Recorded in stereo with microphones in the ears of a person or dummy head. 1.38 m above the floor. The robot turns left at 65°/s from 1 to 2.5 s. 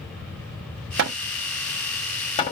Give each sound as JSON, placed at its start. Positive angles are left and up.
{"t": 1.0, "sound": "hammering", "side_deg": -60, "distance_m": 0.7}